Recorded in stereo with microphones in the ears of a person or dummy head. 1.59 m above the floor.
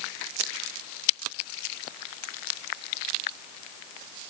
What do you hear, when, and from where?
Only background noise.